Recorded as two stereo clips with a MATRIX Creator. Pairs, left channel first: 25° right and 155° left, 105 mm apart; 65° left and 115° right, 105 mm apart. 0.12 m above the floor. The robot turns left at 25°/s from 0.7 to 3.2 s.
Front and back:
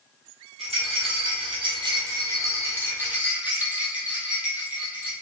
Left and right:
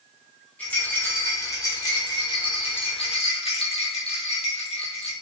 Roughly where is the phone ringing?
I don't hear a phone ringing.